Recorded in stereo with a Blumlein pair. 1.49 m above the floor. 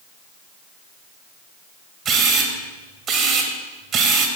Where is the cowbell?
I don't hear a cowbell.